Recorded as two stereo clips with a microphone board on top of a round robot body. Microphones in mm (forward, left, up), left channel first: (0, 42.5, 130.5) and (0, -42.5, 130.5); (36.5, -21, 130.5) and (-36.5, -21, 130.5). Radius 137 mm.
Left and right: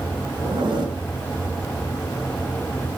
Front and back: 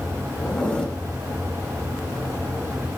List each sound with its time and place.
0.4 s a zipper: 70° right, 7.5 m